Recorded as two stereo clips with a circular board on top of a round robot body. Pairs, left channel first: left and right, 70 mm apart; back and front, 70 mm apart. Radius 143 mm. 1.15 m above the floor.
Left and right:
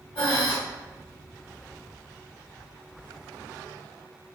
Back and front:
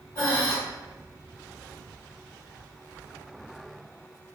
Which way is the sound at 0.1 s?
125° left.